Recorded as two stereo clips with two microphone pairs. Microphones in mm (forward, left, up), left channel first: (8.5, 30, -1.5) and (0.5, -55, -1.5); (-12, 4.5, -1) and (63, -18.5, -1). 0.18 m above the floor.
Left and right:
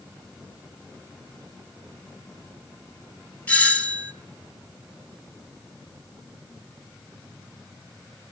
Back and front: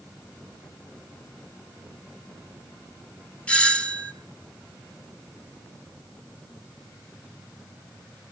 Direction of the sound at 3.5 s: 120° left.